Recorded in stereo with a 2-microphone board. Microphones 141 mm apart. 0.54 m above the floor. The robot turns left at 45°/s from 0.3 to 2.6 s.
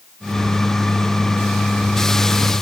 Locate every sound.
Only background noise.